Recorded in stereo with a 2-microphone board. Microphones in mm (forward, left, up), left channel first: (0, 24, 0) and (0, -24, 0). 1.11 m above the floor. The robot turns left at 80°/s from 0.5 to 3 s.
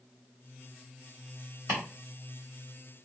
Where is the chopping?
50° right (ahead or behind), 1.1 m; by 1.8 s 45° right (ahead or behind), 1.1 m.